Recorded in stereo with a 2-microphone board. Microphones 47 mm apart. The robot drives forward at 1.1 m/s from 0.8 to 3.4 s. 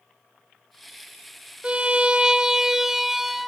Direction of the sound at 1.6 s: 20° right (ahead or behind).